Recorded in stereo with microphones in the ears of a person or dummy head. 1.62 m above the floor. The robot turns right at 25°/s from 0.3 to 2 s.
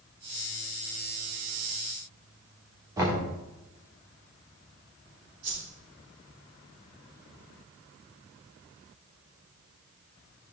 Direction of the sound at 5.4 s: 65° right (ahead or behind).